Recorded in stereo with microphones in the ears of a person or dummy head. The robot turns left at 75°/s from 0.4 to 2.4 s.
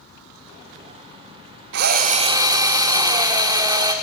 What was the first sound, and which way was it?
A drill, 105° right.